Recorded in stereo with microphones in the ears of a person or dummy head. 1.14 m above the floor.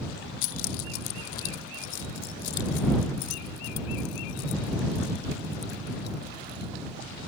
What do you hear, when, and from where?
0.4 s keys jangling: 70° left (ahead or behind); by 6.7 s 60° left (ahead or behind)